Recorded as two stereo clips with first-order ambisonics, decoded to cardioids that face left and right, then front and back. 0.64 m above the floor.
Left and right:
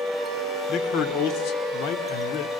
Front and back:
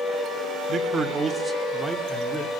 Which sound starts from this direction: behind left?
A man speaking, at 0.7 s.